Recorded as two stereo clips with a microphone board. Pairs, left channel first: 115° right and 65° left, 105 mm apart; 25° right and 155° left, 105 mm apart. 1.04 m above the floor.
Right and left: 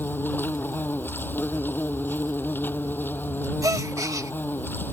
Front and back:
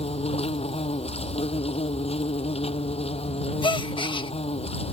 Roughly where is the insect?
Ahead right.